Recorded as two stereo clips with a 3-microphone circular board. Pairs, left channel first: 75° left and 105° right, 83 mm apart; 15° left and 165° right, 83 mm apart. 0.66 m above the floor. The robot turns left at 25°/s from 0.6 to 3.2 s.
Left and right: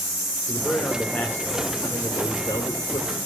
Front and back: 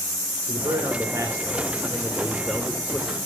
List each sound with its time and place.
0.5 s a man speaking: 150° left, 2 m; by 3.2 s 85° left, 2 m